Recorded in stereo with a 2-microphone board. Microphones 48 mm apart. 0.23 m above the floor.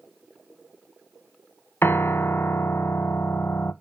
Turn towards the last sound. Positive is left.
turn(degrees=55)  # may be behind; listen again after turning